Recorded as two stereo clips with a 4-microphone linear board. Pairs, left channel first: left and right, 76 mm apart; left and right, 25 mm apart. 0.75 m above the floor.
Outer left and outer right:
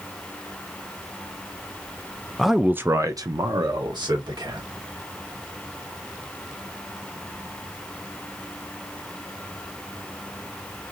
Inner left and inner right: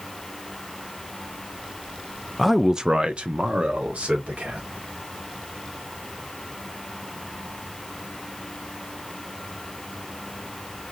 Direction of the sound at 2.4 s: 5° left (ahead or behind).